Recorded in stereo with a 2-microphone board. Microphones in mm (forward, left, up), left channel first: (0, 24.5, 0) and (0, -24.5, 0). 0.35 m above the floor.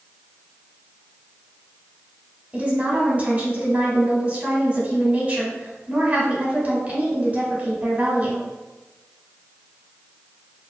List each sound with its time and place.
2.5 s a woman speaking: 30° right (ahead or behind), 0.9 m